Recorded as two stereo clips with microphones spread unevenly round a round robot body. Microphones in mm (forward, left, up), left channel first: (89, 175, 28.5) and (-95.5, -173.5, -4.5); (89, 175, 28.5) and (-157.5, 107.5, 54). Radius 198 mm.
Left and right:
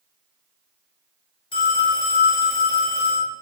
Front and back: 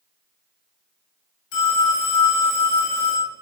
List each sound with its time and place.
1.5 s a phone ringing: 15° right, 3 m